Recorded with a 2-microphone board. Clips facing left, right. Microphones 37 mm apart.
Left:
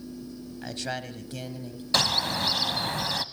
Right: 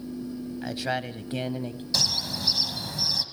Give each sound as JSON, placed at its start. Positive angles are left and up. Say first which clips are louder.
{"t": 0.6, "sound": "a man speaking", "louder": "right 4 dB", "side_deg": -5, "distance_m": 1.2}
{"t": 1.9, "sound": "a bird", "louder": "left 4 dB", "side_deg": 45, "distance_m": 0.9}